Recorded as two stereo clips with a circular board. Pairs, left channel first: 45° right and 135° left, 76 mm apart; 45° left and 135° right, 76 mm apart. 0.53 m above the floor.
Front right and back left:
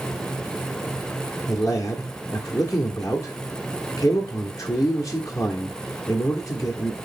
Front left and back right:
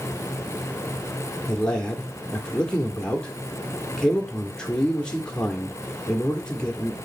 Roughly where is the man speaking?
Ahead right.